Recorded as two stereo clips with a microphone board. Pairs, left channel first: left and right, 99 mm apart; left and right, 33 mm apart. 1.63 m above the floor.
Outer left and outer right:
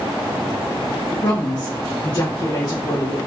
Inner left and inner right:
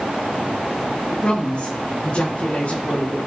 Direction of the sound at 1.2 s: 45° left (ahead or behind).